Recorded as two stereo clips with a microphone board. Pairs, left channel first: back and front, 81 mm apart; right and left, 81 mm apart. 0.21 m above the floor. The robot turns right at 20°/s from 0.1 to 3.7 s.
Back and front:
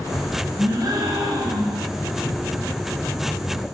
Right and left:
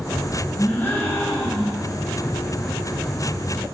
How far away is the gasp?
About 9.5 m.